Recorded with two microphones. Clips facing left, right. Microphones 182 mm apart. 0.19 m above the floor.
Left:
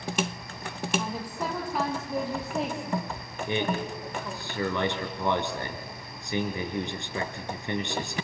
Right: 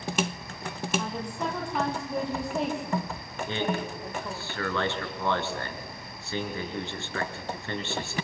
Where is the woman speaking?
5° left (ahead or behind), 6.5 m; by 4.5 s 5° right (ahead or behind), 7.5 m.